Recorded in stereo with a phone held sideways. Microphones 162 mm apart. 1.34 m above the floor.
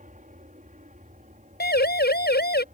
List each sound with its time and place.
0.0 s an aircraft: 50° right (ahead or behind)
1.6 s a siren: 85° left